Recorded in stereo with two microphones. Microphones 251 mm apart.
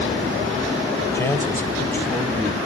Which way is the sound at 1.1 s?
10° left (ahead or behind).